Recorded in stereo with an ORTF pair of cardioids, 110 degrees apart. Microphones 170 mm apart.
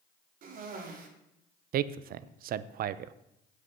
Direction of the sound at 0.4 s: 55° right.